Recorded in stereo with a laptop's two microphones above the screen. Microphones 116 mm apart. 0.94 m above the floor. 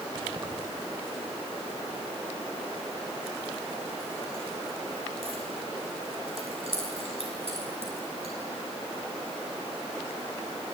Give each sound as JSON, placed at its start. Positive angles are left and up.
{"t": 0.1, "sound": "keys jangling", "side_deg": -45, "distance_m": 3.0}